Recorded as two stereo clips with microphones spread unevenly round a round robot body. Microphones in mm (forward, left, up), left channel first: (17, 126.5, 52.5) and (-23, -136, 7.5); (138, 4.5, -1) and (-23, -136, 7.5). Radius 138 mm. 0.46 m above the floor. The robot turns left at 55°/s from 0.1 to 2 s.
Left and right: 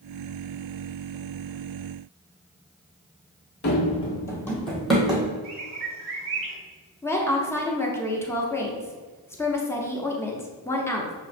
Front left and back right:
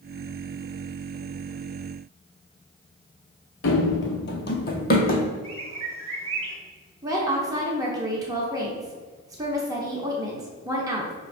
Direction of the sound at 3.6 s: 50° left.